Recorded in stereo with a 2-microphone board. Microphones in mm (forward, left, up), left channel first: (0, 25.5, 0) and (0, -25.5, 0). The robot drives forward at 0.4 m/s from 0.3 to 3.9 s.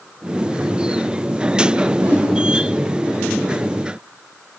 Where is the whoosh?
30° right (ahead or behind), 3.5 m.